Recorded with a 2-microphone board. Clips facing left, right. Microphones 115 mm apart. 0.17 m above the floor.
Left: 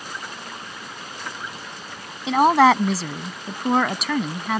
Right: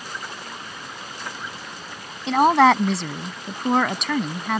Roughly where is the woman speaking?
Centre.